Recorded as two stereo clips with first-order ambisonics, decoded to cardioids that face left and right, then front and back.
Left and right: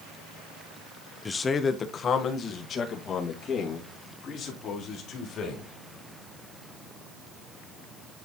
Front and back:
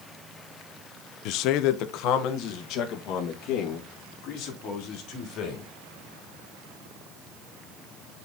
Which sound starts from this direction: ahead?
A man speaking, at 1.2 s.